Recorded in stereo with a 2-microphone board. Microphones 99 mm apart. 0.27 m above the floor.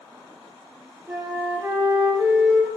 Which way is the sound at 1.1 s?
25° right (ahead or behind).